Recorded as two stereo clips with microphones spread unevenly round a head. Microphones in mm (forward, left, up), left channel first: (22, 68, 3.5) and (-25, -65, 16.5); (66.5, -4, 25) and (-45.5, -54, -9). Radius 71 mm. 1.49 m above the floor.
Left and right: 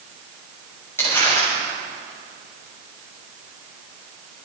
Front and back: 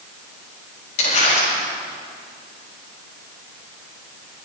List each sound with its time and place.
1.0 s crumpling: 5° right, 7 m